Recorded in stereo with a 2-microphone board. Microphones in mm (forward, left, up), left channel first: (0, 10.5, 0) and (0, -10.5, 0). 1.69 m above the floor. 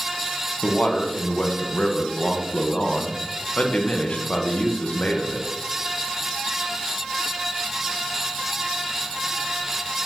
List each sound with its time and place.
0.6 s a man speaking: 70° left (ahead or behind), 1.2 m